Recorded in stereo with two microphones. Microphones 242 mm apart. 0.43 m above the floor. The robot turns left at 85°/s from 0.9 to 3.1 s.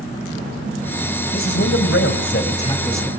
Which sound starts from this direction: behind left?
A man speaking, at 1.3 s.